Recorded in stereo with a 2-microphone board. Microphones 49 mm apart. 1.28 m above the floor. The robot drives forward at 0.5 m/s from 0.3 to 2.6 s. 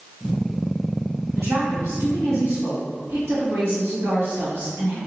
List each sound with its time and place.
1.3 s a woman speaking: 80° right, 1.9 m; by 5.0 s 60° right (ahead or behind), 2 m